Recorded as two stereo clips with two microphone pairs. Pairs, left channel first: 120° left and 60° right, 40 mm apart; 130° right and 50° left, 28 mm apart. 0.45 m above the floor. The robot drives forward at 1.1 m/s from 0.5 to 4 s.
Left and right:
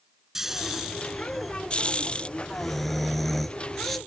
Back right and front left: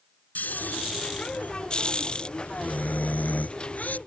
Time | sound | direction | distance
0.3 | snoring | 135° right | ?